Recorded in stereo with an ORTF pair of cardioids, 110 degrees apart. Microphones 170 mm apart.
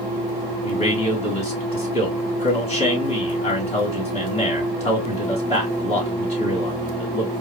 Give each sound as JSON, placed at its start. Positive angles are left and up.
{"t": 0.6, "sound": "a man speaking", "azimuth_deg": 40, "distance_m": 3.0}